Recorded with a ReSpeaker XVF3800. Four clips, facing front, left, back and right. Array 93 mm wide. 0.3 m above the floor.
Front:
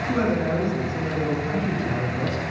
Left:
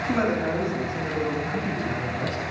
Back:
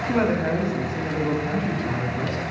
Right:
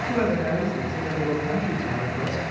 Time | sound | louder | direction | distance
0.1 | a woman speaking | even, back 1 dB | 155° left | 2 m